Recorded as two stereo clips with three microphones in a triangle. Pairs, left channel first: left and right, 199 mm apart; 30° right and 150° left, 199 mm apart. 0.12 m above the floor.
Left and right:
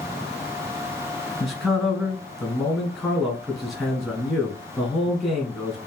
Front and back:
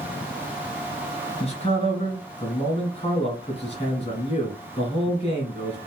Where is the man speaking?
5° right, 1.5 m.